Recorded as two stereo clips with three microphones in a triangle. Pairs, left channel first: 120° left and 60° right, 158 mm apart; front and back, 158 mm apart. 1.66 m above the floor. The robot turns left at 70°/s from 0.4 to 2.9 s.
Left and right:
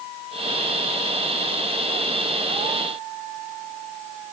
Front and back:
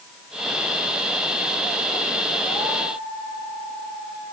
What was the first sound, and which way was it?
Only background noise.